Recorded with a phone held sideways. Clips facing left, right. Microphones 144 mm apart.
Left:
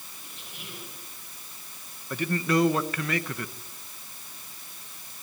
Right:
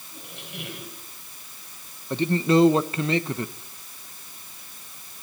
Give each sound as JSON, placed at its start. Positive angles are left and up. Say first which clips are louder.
{"t": 0.1, "sound": "a squeak", "louder": "right 11 dB", "side_deg": -70, "distance_m": 4.5}
{"t": 2.1, "sound": "a man speaking", "louder": "right 5 dB", "side_deg": -25, "distance_m": 1.0}